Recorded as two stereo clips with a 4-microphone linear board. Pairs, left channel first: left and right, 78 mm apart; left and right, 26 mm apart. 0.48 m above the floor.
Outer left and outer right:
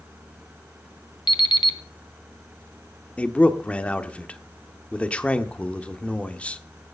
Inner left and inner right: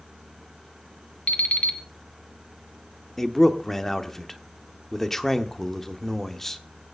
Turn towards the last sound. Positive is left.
turn(degrees=15)  # may be behind; listen again after turning